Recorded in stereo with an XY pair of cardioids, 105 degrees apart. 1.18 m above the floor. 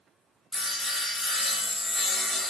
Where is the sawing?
10° left, 0.7 m.